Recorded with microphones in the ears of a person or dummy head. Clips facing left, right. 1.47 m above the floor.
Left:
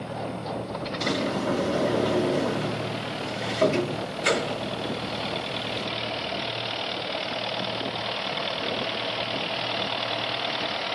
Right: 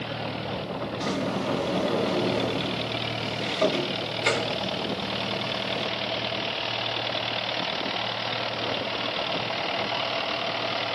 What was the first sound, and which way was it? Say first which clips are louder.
A sliding door: left 2 dB; 10° left (ahead or behind).